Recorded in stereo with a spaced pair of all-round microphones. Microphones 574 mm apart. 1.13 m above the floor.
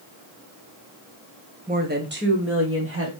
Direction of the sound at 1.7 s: 15° right (ahead or behind).